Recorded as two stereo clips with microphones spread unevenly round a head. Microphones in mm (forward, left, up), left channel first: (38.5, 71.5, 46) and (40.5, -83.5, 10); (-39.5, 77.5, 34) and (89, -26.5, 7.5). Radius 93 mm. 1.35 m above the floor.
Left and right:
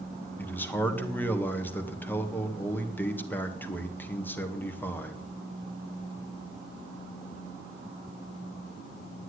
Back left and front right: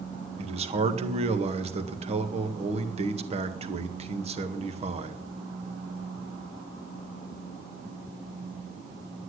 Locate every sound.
0.4 s a man speaking: 10° left, 2.0 m